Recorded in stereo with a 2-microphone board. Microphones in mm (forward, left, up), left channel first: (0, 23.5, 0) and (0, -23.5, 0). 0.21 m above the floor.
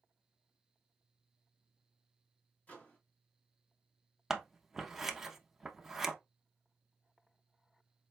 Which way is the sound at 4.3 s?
10° right (ahead or behind).